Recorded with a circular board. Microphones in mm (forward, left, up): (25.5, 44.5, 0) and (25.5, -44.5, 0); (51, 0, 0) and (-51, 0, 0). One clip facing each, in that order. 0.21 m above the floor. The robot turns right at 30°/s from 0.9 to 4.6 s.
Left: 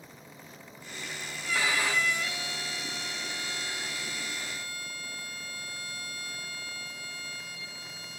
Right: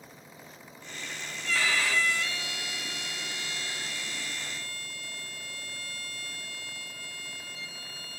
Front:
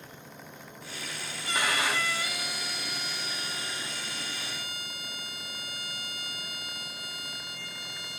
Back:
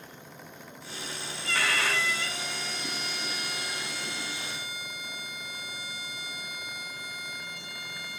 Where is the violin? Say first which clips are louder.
Even, even; 35° left, 1.3 m; by 8.2 s 130° left, 1.3 m.